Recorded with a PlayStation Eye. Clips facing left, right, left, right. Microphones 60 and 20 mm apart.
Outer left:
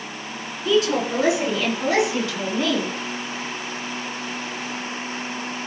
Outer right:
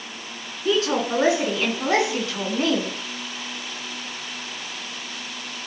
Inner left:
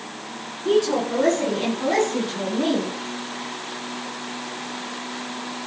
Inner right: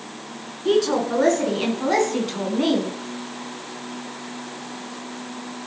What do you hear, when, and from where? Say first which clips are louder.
0.7 s a woman speaking: outer left 2 dB, inner right 1 dB; 35° right (ahead or behind), 4.5 m